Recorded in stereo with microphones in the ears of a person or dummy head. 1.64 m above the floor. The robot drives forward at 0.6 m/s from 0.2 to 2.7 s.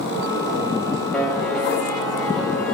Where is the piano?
5° left (ahead or behind), 2 m.